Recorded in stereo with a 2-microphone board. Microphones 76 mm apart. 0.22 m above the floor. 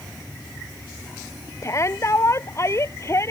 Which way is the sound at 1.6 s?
40° left (ahead or behind).